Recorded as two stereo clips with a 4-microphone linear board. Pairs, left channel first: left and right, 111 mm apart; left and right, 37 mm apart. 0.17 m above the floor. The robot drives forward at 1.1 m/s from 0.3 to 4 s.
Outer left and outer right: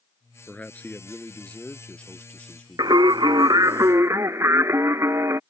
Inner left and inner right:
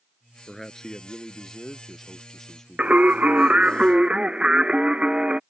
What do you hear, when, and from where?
0.5 s a man speaking: 15° left (ahead or behind); by 3.1 s 5° left (ahead or behind)
2.8 s singing: 40° right (ahead or behind); by 5.4 s 25° right (ahead or behind)